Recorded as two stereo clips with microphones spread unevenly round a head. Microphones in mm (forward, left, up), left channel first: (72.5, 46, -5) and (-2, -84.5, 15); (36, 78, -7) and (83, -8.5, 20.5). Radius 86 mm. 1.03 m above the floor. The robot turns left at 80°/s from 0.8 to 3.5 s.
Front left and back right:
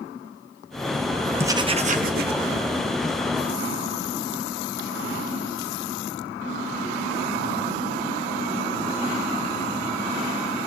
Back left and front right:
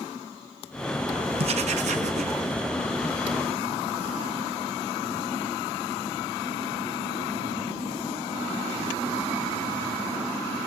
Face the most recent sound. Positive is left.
turn(degrees=150)